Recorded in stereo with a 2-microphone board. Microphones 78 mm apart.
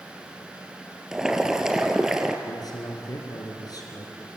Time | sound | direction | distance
1.1 | boiling | 5° right (ahead or behind) | 1.8 m
2.5 | a man speaking | 55° left (ahead or behind) | 4 m